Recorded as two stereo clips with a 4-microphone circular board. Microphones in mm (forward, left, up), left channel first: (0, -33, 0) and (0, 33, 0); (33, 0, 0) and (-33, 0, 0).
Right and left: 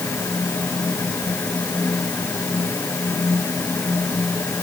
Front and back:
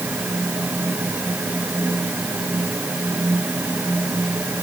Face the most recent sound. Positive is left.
No sound to turn to.